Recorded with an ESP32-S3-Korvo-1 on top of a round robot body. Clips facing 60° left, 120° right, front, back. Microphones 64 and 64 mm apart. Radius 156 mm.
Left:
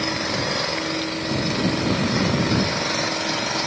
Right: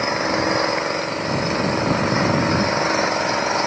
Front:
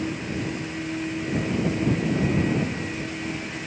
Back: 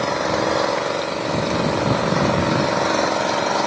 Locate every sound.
0.0 s an engine running: straight behind